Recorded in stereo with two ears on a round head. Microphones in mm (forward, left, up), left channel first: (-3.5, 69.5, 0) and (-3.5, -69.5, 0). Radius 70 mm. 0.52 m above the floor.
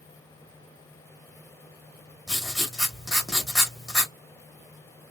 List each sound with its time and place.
2.3 s writing: centre (ahead or behind), 1.3 m